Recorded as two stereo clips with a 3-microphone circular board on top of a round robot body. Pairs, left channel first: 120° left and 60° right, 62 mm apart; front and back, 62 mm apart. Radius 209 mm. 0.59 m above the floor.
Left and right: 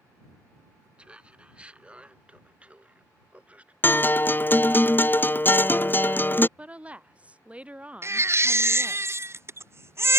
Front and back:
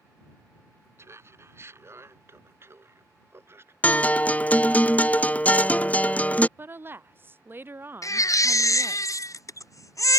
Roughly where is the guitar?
Ahead left.